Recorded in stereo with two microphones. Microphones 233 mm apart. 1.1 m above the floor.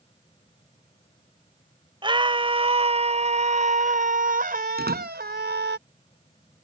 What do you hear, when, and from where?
2.0 s a scream: 20° right (ahead or behind); by 5.8 s 50° right (ahead or behind)
4.8 s a door slam: 45° right (ahead or behind)